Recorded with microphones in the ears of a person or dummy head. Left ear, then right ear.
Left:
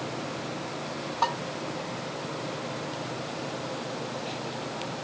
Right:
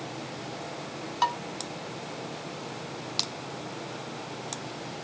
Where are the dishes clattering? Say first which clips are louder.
Right 1 dB; 80° right, 2 m.